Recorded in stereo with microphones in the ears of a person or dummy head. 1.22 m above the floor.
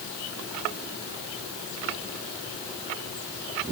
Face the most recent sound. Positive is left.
No sound to turn to.